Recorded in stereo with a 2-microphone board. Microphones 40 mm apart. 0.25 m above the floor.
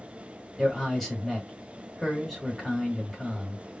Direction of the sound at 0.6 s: 10° left (ahead or behind).